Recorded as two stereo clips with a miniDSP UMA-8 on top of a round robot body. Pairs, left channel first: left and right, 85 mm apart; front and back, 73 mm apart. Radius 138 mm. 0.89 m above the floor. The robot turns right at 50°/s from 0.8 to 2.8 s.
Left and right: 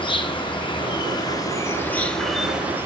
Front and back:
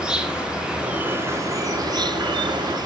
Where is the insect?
100° left, 1.5 m; by 2.9 s 160° right, 1.5 m.